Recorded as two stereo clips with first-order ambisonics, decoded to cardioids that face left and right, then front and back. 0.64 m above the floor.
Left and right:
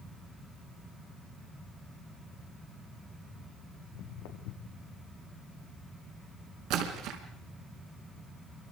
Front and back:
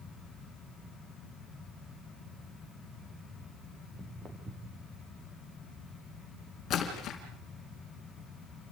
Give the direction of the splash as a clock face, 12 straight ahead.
2 o'clock.